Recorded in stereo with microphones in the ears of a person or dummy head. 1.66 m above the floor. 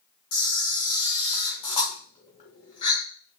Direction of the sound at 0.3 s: 30° left (ahead or behind).